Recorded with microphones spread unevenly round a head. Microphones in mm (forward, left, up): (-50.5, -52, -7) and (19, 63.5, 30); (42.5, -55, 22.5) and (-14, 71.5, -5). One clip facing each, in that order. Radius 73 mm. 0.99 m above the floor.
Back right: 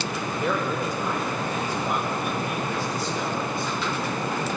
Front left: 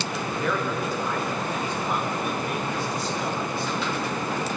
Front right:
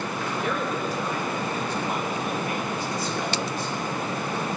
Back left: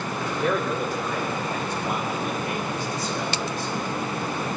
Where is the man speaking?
165° left, 3 m; by 3.7 s 145° left, 6 m.